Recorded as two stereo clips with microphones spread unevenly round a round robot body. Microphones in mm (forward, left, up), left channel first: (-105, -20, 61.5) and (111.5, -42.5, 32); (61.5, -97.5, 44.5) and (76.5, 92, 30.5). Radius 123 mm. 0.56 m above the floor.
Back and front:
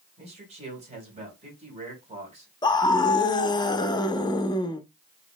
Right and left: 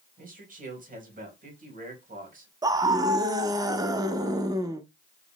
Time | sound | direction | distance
0.2 | a man speaking | 50° left | 2.5 m
2.6 | a scream | 110° left | 0.6 m